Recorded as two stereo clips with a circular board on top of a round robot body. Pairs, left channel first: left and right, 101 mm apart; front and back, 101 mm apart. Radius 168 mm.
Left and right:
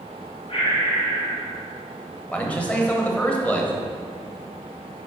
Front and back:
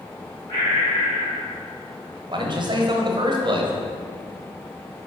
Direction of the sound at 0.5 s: 45° left.